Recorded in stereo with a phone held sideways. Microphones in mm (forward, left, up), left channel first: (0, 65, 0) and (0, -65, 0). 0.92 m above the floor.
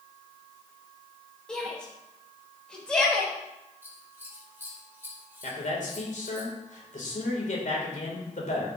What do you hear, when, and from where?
1.5 s a shout: 5° left (ahead or behind), 4 m
3.8 s scissors: 15° right (ahead or behind), 2.5 m
5.4 s a man speaking: 70° left (ahead or behind), 3 m